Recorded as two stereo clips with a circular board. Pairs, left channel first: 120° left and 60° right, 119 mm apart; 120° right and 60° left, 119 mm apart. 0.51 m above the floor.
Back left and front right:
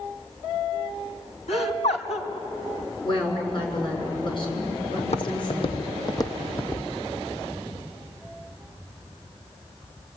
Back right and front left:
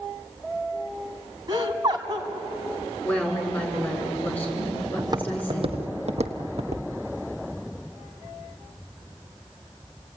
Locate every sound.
1.5 s laughter: 115° left, 3.5 m
3.0 s a woman speaking: 165° left, 7 m
5.0 s footsteps: 115° left, 1.4 m; by 6.8 s 45° left, 1.6 m